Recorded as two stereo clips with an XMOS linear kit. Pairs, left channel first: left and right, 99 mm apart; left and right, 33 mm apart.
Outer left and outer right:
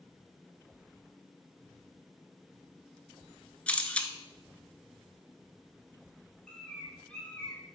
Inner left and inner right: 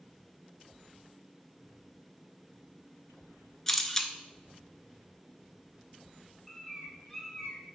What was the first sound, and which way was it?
A camera shutter, 15° left (ahead or behind).